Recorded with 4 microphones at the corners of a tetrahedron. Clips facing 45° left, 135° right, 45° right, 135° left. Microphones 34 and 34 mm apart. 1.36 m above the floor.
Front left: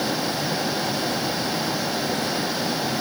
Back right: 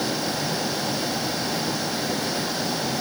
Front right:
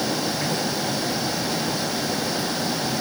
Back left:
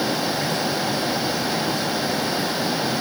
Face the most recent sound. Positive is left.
No sound to turn to.